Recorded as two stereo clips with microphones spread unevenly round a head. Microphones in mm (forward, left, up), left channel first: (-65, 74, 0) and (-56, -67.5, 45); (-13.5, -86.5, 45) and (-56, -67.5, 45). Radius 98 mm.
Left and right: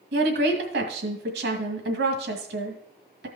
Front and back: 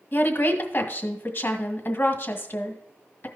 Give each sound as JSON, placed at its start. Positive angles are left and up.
{"t": 0.1, "sound": "a woman speaking", "azimuth_deg": -70, "distance_m": 1.9}